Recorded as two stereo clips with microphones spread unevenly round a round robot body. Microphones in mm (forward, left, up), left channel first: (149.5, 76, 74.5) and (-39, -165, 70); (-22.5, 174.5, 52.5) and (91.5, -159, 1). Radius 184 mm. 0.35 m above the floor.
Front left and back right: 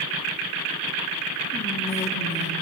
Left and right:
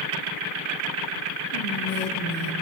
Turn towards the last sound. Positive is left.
turn(degrees=80)